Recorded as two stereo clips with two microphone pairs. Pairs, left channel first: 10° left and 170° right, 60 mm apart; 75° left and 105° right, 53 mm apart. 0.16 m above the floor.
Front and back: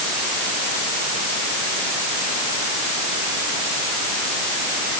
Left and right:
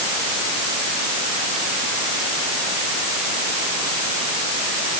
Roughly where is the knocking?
No knocking in this recording.